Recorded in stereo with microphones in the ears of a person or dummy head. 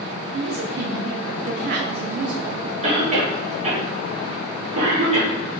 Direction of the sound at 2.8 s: 35° right (ahead or behind).